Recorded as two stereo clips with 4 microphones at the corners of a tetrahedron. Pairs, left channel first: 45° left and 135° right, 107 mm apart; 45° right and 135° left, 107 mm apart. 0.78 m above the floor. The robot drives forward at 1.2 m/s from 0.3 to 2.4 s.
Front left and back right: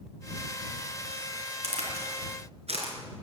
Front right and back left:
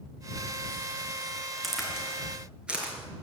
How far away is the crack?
About 3.5 m.